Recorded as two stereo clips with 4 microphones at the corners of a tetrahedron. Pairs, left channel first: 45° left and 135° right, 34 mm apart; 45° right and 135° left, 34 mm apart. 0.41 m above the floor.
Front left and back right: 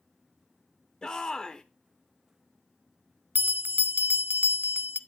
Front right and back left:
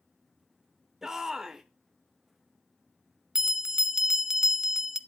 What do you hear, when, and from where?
1.0 s a shout: 70° left, 0.8 m
3.4 s a bell: 150° right, 0.6 m